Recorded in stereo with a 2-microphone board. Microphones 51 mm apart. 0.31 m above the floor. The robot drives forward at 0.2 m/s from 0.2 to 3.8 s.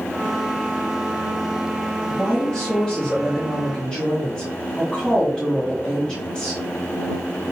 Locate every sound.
2.1 s a woman speaking: 20° left (ahead or behind), 2.5 m